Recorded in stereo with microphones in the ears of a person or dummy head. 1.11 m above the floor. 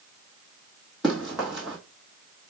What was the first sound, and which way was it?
Running footsteps, centre (ahead or behind).